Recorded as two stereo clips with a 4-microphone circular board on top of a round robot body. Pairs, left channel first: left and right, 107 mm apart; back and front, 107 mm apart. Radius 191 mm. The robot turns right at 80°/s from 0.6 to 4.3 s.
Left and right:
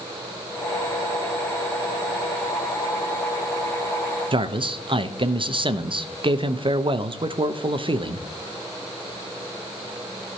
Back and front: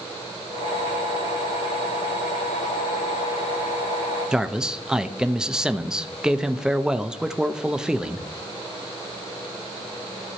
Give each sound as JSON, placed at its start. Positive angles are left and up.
{"t": 4.3, "sound": "a man speaking", "azimuth_deg": -85, "distance_m": 1.1}